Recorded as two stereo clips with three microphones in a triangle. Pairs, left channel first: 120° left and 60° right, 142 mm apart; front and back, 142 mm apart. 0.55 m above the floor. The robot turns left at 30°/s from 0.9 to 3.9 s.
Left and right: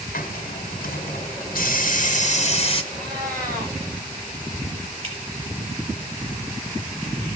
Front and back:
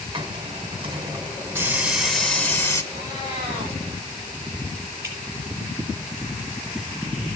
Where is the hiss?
125° left, 1.7 m; by 2.8 s 65° left, 1.7 m.